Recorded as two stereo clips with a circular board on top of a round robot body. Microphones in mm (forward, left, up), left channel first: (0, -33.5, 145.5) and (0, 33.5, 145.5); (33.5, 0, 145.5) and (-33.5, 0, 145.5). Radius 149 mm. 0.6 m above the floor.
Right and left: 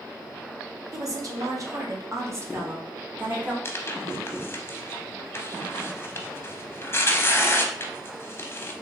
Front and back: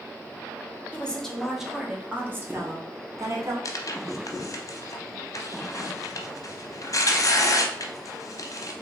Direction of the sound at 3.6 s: 35° right.